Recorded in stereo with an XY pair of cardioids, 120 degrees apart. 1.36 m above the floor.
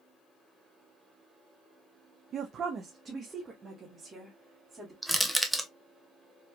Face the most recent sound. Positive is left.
turn(degrees=0)